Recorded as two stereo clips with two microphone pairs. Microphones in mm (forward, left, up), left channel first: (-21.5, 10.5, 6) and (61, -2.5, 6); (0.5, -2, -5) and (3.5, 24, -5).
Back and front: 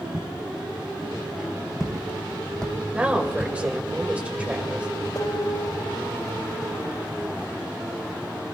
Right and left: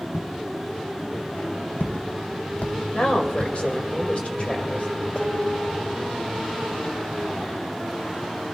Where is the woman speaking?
80° right, 2 m.